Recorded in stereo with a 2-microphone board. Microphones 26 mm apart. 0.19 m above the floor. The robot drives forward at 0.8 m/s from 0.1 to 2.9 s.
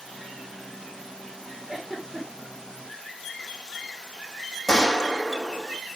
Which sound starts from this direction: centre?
A gunshot, at 4.7 s.